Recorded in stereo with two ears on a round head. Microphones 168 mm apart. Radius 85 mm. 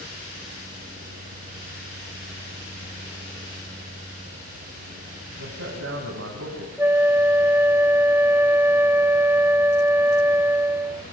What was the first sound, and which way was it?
A man speaking, 75° right (ahead or behind).